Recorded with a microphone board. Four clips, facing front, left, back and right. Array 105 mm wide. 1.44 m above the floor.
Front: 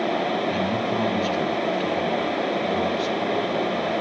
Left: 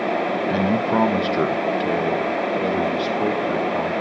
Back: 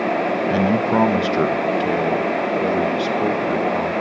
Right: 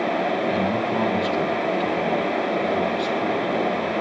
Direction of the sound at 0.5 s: 145° left.